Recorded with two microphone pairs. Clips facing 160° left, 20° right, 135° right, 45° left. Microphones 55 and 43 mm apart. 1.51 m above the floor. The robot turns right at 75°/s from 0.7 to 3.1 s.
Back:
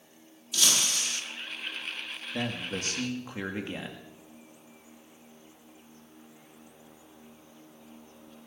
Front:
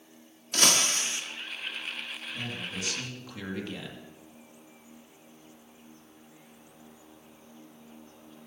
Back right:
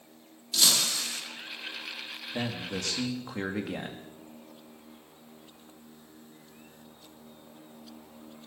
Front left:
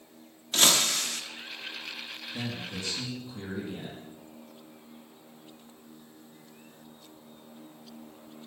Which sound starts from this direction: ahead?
Breaking glass, at 0.5 s.